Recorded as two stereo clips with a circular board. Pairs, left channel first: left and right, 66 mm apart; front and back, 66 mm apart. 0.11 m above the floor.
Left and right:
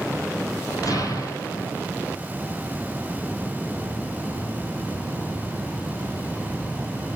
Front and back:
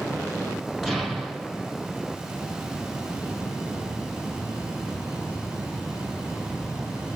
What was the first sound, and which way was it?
An explosion, 95° left.